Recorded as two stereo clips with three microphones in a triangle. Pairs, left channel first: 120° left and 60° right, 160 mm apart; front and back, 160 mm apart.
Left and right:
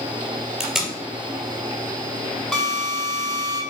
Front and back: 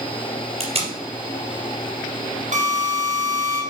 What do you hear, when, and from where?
0.6 s tape being pulled: 150° right, 2.5 m
2.5 s a drill: 155° right, 2.5 m